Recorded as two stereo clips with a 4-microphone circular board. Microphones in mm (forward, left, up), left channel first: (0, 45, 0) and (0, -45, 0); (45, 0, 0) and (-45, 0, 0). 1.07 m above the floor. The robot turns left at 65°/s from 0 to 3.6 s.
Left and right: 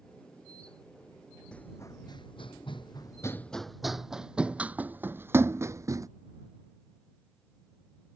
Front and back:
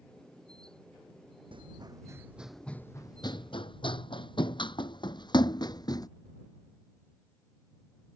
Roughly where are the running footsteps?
Behind.